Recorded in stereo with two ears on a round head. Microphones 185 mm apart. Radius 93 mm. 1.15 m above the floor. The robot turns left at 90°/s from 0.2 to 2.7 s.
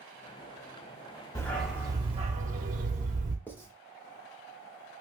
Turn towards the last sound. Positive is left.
turn(degrees=10)  # may be behind; listen again after turning